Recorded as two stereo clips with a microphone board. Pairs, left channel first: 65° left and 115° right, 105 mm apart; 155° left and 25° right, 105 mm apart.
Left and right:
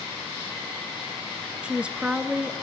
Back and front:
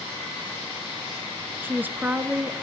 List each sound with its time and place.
1.6 s a woman speaking: 55° right, 1.1 m